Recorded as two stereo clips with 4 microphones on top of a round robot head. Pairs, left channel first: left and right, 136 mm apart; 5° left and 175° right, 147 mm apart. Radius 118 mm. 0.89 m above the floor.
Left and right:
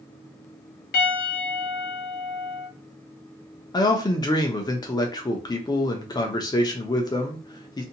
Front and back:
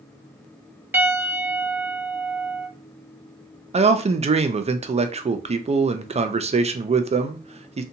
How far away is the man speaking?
About 0.5 m.